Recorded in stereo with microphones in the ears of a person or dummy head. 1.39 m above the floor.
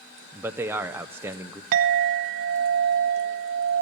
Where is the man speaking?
15° right (ahead or behind), 0.5 m.